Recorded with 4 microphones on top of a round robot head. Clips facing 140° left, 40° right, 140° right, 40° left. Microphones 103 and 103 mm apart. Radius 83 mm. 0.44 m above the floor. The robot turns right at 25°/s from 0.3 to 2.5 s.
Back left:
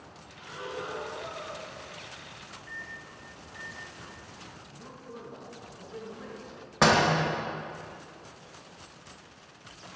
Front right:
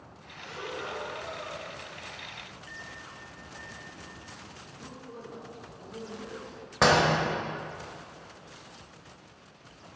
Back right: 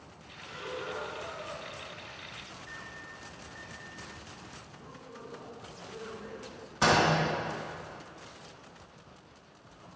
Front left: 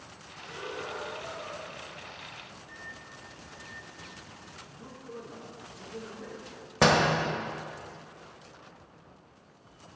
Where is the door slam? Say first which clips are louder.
Even, front left 2 dB; 50° left, 1.5 m.